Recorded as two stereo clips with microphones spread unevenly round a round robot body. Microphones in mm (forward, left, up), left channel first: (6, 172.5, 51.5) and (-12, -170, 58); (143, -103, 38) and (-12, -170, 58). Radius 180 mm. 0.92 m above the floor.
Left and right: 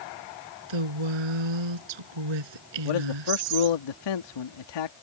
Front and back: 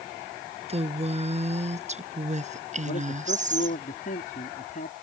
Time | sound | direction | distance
0.7 | a woman speaking | 105° right | ?
2.9 | a man speaking | 80° left | ?